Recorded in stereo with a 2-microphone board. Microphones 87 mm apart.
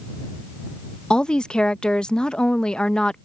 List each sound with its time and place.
1.1 s a woman speaking: 10° left (ahead or behind)